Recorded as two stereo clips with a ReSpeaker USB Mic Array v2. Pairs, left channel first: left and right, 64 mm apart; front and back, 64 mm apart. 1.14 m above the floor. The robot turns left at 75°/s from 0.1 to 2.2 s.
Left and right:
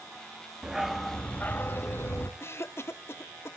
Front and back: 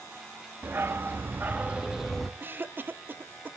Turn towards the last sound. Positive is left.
turn(degrees=125)